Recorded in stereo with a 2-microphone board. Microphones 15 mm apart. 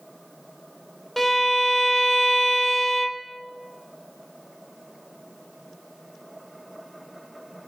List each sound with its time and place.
1.2 s a violin: 15° left (ahead or behind), 0.8 m